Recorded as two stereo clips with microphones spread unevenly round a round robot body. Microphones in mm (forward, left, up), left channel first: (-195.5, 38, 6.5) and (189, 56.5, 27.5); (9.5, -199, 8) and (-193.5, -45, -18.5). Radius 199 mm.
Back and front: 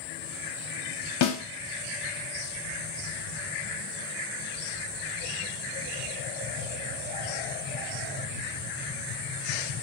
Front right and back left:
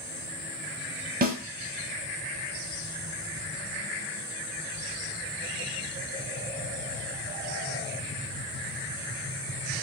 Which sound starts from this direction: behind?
A snare drum, at 1.2 s.